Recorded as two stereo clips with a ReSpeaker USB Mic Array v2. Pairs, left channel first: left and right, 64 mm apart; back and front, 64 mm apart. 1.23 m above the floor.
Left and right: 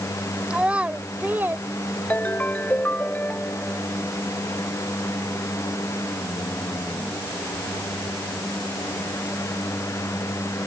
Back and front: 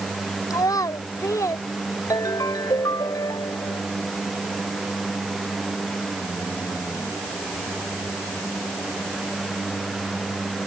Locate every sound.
0.5 s a child speaking: 165° right; by 1.6 s 145° right
2.1 s a ringtone: 155° left